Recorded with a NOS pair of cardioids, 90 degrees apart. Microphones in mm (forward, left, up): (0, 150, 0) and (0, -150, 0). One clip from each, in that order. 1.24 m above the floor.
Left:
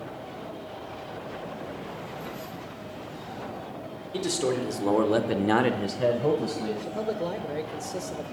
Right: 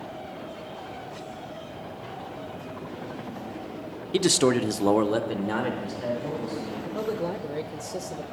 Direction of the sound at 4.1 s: 60° right.